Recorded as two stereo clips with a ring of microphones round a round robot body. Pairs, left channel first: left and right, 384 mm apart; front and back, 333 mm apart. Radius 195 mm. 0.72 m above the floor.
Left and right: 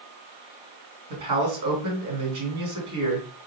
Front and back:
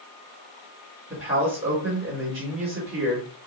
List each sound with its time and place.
1.1 s a man speaking: 95° right, 2 m